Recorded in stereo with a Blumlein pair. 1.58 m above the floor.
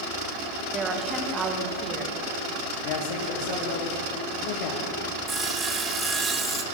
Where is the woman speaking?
20° right, 1.3 m.